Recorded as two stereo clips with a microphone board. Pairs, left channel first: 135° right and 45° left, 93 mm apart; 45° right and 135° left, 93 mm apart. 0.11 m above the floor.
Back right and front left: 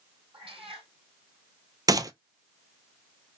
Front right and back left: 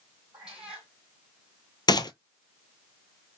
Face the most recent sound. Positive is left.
turn(degrees=-5)